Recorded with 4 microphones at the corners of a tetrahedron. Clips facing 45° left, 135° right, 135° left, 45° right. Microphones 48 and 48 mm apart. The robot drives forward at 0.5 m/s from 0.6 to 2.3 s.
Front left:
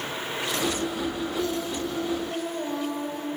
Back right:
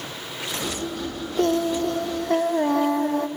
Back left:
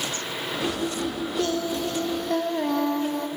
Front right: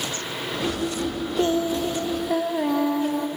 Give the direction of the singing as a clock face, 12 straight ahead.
4 o'clock.